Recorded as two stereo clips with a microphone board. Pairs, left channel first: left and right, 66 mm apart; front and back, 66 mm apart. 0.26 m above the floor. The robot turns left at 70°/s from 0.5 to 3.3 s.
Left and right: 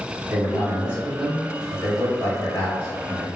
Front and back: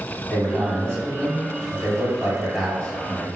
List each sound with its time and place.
0.3 s a man speaking: 125° right, 1.7 m; by 3.3 s 40° left, 1.7 m